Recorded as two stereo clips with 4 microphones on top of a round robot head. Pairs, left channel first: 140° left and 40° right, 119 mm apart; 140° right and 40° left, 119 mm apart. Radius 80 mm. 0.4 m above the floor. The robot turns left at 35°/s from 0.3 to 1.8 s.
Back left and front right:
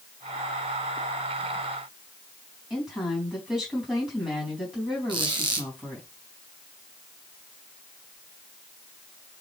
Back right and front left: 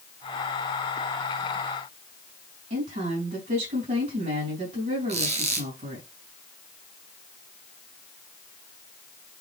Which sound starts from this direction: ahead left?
A woman speaking, at 2.7 s.